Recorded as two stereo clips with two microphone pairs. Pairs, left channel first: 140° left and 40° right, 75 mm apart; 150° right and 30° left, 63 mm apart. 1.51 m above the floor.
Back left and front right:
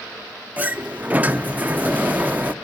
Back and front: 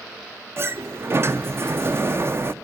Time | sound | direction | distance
0.6 | a sliding door | 15° left | 0.5 m